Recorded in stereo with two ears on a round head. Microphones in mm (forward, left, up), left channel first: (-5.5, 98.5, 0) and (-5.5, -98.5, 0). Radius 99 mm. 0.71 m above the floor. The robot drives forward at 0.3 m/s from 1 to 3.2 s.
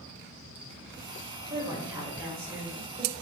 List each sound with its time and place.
1.5 s a woman speaking: 10° right (ahead or behind), 1.1 m